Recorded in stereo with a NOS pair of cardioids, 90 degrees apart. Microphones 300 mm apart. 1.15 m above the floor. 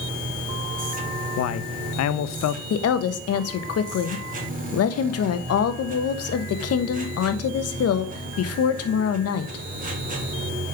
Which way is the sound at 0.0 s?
25° right.